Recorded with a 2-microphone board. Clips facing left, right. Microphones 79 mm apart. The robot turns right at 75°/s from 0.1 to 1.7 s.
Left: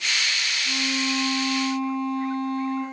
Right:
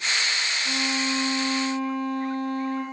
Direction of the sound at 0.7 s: 125° right.